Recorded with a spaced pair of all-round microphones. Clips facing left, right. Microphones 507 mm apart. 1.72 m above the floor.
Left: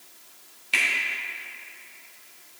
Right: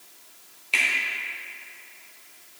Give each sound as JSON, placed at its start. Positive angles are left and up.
{"t": 0.7, "sound": "a finger snap", "side_deg": 35, "distance_m": 1.4}